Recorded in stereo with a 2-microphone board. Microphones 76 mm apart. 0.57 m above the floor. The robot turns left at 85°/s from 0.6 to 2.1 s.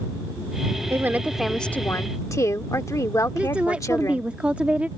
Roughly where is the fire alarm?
I don't hear a fire alarm.